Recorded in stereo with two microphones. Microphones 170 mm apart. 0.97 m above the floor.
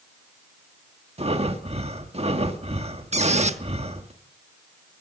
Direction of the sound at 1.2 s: 35° right (ahead or behind).